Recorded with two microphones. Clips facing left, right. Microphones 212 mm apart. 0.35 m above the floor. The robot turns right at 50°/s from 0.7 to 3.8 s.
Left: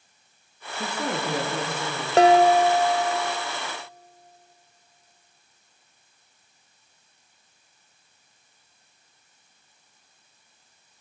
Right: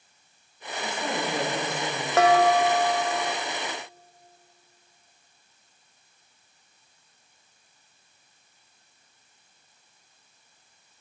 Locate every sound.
0.8 s a woman speaking: 105° left, 7 m; by 2.1 s 170° left, 7 m
2.2 s dishes clattering: 105° left, 0.8 m; by 3.3 s 165° left, 0.8 m